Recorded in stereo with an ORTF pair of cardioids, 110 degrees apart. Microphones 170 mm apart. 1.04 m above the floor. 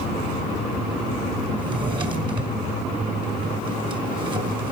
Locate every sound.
1.6 s a drawer: 30° right, 2 m